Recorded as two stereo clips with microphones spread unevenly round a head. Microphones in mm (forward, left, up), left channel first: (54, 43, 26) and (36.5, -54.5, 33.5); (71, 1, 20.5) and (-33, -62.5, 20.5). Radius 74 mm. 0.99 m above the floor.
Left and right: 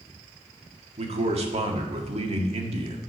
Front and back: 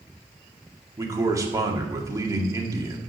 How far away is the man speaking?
About 1.9 m.